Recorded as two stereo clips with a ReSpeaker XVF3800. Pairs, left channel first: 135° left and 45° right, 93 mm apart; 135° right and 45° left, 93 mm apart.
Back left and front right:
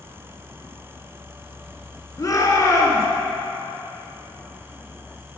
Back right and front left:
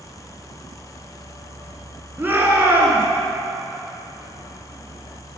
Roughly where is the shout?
Left.